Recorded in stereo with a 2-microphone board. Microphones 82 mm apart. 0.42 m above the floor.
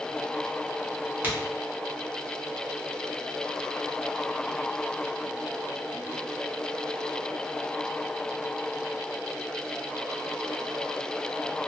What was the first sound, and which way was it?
A crack, 25° right (ahead or behind).